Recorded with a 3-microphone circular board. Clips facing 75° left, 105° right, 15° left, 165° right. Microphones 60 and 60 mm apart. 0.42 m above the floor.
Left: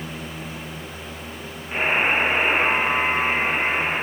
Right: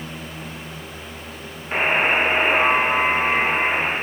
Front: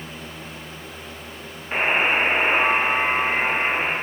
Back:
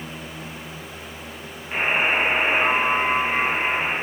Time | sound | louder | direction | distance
1.7 | a buzzer | right 2 dB, front 1 dB | 50° right | 8.5 m